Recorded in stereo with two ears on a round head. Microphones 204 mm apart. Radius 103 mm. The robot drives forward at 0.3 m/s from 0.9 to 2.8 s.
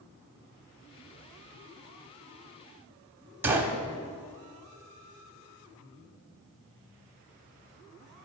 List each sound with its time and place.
3.4 s a gunshot: 10° right (ahead or behind), 1.5 m